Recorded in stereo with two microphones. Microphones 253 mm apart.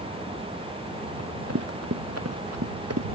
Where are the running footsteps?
80° right; by 3.1 s 85° right.